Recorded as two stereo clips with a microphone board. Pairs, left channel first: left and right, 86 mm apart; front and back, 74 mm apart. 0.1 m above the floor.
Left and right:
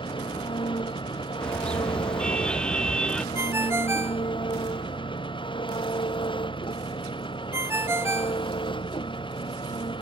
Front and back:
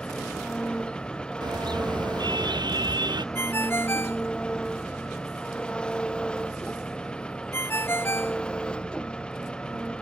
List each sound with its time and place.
0.0 s an engine running: 75° left
1.4 s a car horn: 170° left
3.4 s a ringtone: 45° right